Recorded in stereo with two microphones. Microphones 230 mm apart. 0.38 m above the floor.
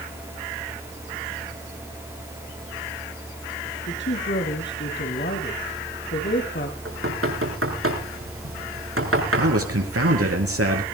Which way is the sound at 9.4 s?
80° right.